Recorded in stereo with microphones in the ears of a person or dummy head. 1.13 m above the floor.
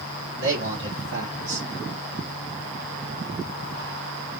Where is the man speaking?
65° right (ahead or behind), 3 m.